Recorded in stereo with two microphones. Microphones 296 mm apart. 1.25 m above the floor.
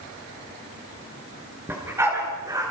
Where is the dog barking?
10° right (ahead or behind), 6 m.